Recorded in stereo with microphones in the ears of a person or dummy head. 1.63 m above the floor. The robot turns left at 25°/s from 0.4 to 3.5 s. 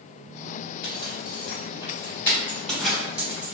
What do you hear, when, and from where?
0.8 s a zipper: 45° left (ahead or behind), 1.5 m; by 3.5 s 15° right (ahead or behind), 1.5 m